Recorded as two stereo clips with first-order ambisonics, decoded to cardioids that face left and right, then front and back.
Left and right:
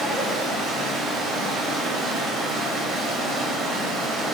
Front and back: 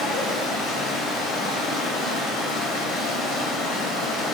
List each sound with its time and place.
0.0 s running water: 35° right, 1.1 m